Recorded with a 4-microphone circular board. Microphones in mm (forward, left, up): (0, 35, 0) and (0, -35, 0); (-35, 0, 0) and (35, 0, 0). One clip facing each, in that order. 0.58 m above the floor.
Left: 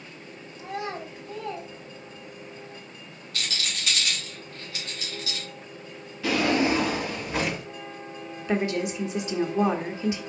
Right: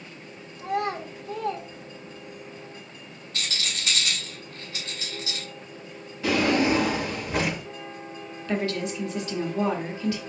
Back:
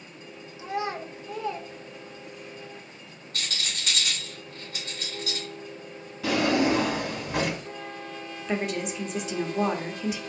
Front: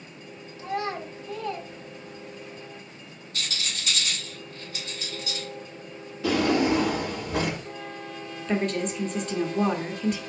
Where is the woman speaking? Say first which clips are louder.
Left 2 dB, front 3 dB; 110° left, 0.8 m.